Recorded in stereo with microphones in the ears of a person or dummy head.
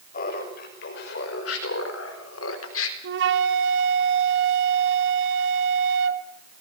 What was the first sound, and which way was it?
Laughter, 50° left (ahead or behind).